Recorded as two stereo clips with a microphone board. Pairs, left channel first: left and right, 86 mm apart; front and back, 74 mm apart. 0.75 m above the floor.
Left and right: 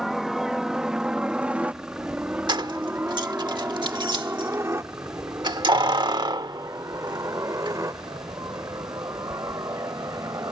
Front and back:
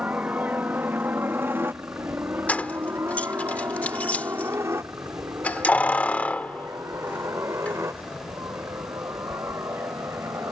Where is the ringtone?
I don't hear a ringtone.